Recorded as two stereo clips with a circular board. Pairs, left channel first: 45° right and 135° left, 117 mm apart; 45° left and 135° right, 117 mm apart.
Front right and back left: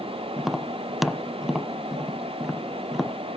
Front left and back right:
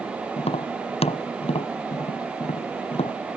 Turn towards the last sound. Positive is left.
turn(degrees=50)